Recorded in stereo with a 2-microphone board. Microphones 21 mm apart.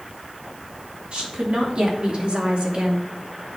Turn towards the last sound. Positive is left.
turn(degrees=-75)  # may be behind; listen again after turning